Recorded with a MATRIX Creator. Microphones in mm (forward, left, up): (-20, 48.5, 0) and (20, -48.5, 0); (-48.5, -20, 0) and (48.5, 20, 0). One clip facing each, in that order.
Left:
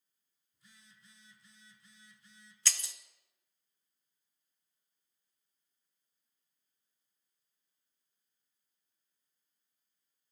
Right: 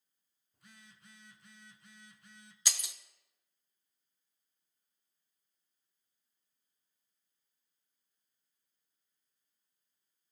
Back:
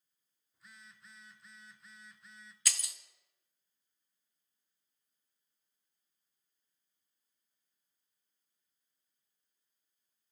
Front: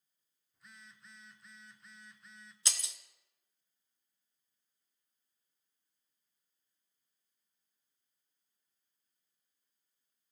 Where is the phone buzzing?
70° right, 0.7 m.